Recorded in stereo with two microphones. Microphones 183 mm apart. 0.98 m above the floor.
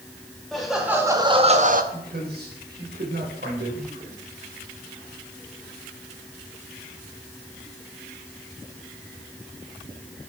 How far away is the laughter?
About 1.5 m.